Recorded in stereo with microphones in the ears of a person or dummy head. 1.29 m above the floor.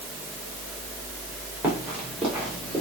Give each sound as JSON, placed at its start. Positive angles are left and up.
{"t": 1.6, "sound": "running footsteps", "side_deg": -5, "distance_m": 4.0}